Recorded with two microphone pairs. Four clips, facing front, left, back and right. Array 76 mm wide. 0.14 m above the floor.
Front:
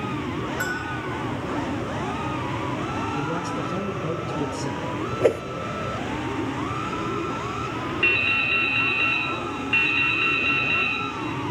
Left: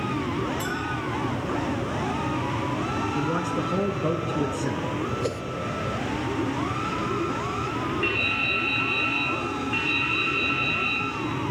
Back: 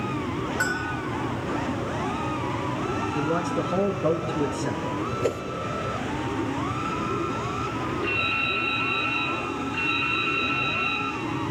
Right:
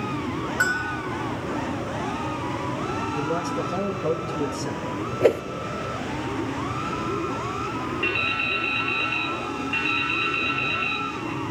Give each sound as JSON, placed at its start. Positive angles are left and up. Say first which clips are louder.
{"t": 0.6, "sound": "a bell", "louder": "right 5 dB, back 1 dB", "azimuth_deg": -95, "distance_m": 1.6}
{"t": 3.1, "sound": "a man speaking", "louder": "right 1 dB, back 2 dB", "azimuth_deg": 140, "distance_m": 1.2}
{"t": 5.2, "sound": "a whoosh", "louder": "right 10 dB, front 8 dB", "azimuth_deg": -55, "distance_m": 0.5}
{"t": 8.0, "sound": "dripping", "louder": "even, front 2 dB", "azimuth_deg": -5, "distance_m": 5.0}